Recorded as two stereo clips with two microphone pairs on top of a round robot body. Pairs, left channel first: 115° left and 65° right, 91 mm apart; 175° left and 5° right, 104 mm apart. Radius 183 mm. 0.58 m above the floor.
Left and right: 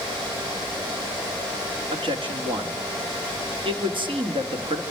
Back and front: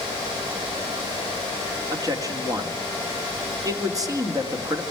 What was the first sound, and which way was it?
A man speaking, 55° right.